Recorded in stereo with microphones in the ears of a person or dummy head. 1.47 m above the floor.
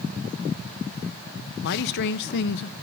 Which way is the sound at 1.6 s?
55° left (ahead or behind).